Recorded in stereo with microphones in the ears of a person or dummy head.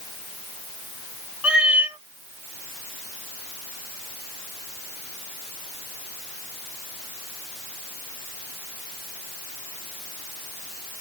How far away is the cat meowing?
About 0.7 m.